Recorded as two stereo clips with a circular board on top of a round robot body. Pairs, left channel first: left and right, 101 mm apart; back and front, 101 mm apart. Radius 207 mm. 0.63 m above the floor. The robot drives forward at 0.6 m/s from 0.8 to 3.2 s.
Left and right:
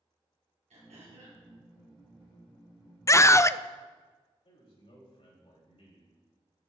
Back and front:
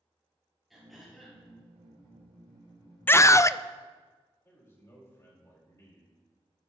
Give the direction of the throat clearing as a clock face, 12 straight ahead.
3 o'clock.